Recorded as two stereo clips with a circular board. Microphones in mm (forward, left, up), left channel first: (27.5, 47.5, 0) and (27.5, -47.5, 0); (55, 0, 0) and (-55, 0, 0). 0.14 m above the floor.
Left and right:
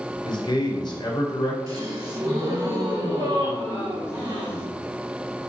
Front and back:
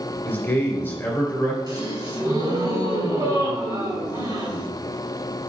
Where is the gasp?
135° right, 2.5 m.